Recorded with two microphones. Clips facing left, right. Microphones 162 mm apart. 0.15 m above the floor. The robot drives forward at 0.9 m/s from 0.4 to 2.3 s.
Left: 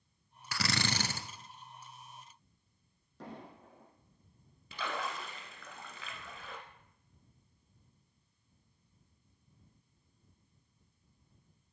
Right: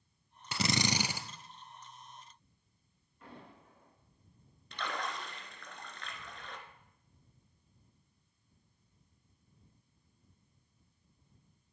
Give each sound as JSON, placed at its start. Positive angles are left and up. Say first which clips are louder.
{"t": 0.5, "sound": "a drill", "louder": "right 3 dB", "side_deg": -25, "distance_m": 0.6}
{"t": 3.2, "sound": "an explosion", "louder": "left 5 dB", "side_deg": 80, "distance_m": 4.0}
{"t": 4.7, "sound": "a splash", "louder": "left 1 dB", "side_deg": 5, "distance_m": 1.5}